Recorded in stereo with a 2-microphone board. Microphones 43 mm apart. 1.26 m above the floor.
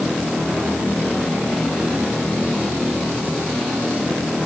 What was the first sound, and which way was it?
Only background noise.